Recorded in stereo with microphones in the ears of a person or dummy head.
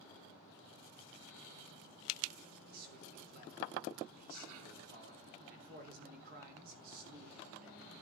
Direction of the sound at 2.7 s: 55° right (ahead or behind).